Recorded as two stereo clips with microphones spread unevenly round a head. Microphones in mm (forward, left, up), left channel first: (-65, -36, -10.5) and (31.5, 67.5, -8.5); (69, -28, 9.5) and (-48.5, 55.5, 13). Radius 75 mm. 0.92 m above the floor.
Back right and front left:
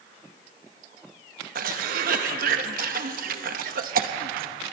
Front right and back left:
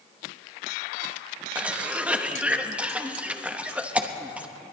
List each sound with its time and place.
1.6 s a cough: 65° left, 1.1 m